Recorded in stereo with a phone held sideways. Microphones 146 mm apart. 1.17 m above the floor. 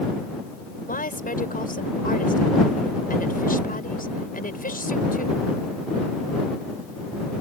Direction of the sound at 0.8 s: 90° left.